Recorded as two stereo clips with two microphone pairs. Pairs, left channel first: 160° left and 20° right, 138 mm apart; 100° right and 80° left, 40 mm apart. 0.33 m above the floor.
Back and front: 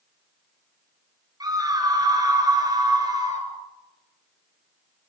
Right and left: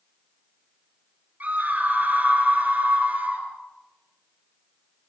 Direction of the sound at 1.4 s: 40° left.